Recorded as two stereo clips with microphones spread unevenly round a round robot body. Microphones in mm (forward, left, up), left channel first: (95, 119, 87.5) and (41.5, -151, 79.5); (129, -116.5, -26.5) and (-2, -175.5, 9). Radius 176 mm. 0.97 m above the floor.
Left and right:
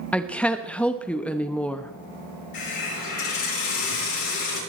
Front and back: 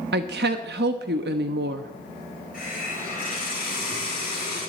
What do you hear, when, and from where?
0.1 s a woman speaking: 165° left, 0.8 m
2.5 s a hiss: 95° left, 7.5 m